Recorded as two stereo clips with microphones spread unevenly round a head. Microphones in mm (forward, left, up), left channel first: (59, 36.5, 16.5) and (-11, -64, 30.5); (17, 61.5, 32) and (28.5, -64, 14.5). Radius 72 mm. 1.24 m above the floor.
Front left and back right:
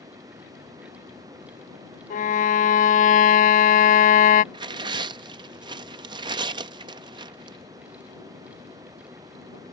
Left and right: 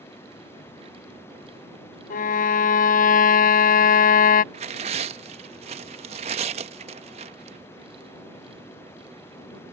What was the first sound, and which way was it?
Running water, 170° left.